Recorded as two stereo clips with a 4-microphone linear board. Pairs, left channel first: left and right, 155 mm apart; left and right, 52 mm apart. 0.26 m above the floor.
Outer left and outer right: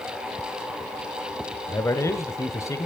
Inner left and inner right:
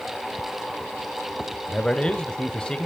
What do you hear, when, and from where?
1.7 s a man speaking: 20° left (ahead or behind), 1.4 m